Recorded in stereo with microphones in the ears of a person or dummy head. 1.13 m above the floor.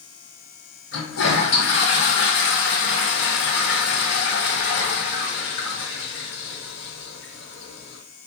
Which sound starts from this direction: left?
A toilet flushing, at 0.9 s.